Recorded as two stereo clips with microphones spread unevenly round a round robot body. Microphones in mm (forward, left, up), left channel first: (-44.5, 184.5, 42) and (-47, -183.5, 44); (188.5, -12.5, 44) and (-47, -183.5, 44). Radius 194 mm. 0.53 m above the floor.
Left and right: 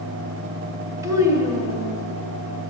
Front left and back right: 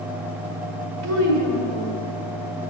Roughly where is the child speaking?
Behind.